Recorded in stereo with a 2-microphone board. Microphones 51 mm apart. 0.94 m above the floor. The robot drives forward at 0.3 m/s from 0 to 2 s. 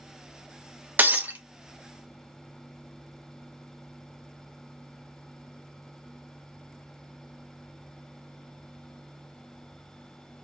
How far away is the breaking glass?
About 0.5 m.